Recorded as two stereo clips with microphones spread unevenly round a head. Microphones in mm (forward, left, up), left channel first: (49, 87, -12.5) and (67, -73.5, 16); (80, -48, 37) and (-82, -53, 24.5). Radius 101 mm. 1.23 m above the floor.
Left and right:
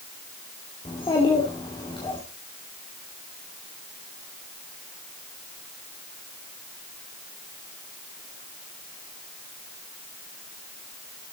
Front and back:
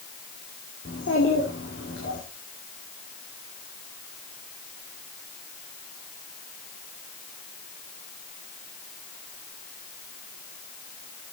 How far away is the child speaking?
About 2.5 m.